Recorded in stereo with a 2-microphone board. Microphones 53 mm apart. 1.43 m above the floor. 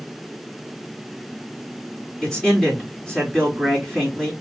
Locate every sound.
2.2 s a man speaking: 15° left (ahead or behind), 3.5 m